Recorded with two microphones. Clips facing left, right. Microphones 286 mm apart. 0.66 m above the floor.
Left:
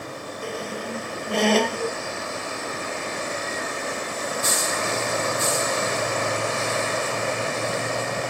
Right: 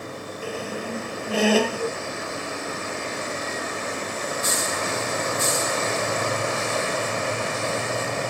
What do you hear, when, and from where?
0.4 s a squeak: 5° right (ahead or behind)